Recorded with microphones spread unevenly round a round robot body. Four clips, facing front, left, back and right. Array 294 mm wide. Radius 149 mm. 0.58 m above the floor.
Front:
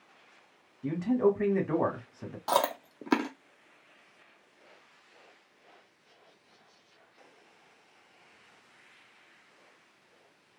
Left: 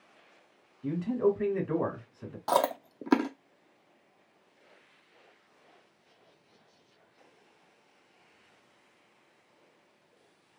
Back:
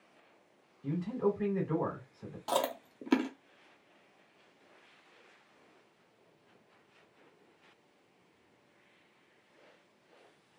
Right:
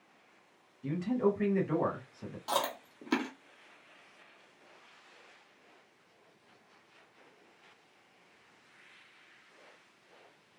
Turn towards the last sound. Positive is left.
turn(degrees=75)